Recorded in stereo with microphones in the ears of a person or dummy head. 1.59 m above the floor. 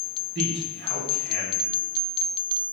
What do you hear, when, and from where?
0.3 s a man speaking: 70° right (ahead or behind), 4 m